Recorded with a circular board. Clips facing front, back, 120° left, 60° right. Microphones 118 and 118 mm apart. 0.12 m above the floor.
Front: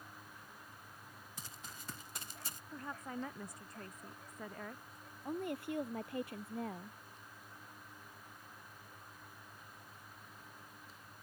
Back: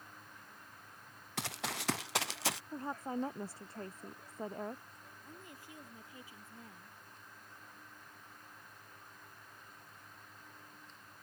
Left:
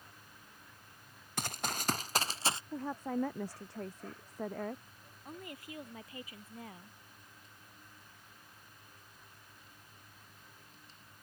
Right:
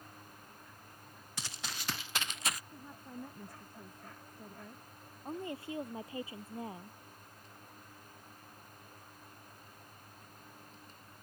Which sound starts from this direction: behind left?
A woman speaking, at 2.7 s.